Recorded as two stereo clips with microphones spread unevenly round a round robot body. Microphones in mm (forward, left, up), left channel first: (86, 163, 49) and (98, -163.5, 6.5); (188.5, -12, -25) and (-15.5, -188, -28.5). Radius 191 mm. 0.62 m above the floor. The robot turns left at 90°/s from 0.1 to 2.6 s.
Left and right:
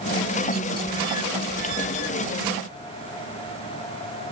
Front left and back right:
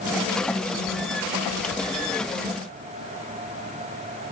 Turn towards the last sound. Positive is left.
No sound to turn to.